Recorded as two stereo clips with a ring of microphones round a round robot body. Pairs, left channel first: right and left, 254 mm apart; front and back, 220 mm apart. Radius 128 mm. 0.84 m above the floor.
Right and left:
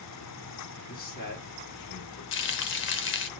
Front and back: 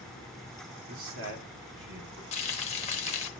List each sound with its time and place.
0.9 s a man speaking: 145° right, 2.5 m; by 2.2 s 130° right, 2 m
2.3 s frying: 60° right, 0.7 m